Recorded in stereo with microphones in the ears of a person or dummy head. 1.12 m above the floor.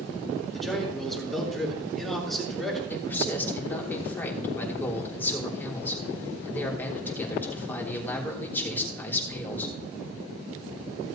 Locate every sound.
0.5 s a man speaking: 5° left (ahead or behind), 3.5 m
2.9 s a man speaking: 15° left (ahead or behind), 3 m